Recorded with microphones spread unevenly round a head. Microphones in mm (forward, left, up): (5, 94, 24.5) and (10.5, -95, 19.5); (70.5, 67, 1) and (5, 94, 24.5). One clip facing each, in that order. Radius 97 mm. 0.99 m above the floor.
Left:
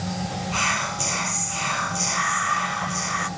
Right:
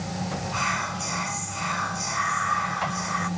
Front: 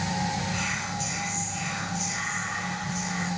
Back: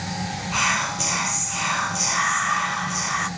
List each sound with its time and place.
0.5 s whispering: 140° left, 0.7 m